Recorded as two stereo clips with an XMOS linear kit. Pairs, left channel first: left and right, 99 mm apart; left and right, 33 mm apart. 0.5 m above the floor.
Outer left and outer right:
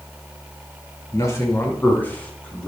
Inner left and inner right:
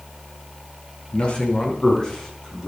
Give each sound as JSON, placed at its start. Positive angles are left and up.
{"t": 1.1, "sound": "a man speaking", "side_deg": 30, "distance_m": 4.0}